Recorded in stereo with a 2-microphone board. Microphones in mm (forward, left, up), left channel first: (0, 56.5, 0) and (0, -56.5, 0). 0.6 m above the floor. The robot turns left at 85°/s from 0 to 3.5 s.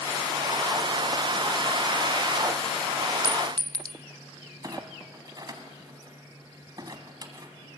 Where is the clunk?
35° right (ahead or behind), 1.8 m.